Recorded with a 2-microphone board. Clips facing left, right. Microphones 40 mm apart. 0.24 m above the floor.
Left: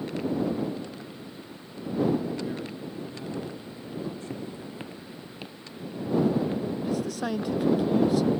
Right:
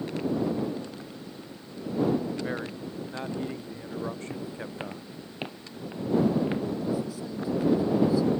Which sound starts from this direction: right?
A man speaking, at 2.4 s.